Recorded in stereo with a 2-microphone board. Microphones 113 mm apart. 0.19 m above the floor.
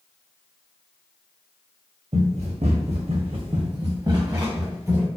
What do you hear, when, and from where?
2.1 s running footsteps: 65° right (ahead or behind), 0.7 m; by 5.1 s 20° right (ahead or behind), 1.5 m